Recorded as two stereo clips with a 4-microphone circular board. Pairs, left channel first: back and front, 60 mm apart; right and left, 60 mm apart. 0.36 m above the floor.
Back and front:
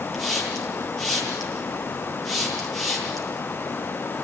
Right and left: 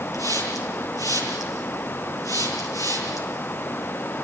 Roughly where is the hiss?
Right.